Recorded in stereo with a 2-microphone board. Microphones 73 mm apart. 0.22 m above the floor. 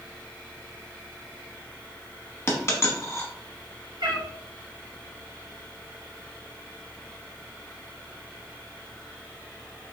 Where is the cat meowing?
70° right (ahead or behind), 1.0 m.